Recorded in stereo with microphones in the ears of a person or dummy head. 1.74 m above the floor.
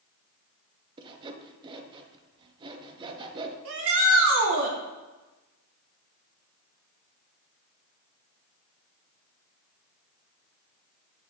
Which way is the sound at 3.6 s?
70° right (ahead or behind).